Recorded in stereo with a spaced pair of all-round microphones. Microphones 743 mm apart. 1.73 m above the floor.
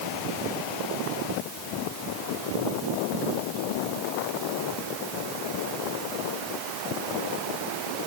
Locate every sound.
Only background noise.